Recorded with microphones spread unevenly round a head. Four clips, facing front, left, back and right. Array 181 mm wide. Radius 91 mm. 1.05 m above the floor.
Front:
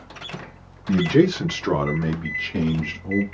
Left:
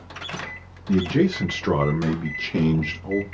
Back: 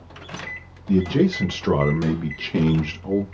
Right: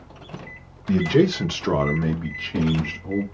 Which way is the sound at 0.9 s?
45° right.